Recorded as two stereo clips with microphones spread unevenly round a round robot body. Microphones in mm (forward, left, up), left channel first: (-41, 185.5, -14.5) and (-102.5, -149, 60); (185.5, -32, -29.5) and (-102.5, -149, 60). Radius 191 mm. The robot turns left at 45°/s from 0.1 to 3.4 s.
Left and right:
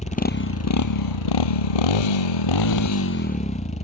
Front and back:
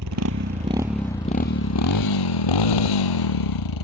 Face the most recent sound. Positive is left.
turn(degrees=5)